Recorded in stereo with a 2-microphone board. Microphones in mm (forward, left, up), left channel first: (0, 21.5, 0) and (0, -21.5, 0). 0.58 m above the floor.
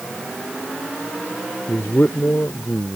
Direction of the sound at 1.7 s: 55° left (ahead or behind).